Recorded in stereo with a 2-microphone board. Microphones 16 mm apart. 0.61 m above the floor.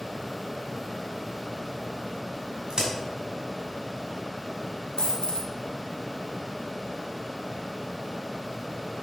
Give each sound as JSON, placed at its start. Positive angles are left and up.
{"t": 2.7, "sound": "a crack", "side_deg": -50, "distance_m": 2.5}
{"t": 5.0, "sound": "a dropped coin", "side_deg": 75, "distance_m": 1.7}